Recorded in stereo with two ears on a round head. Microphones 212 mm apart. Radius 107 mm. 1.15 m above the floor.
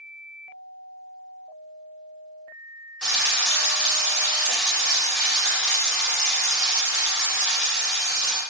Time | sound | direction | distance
3.0 | frying | 5° left (ahead or behind) | 1.3 m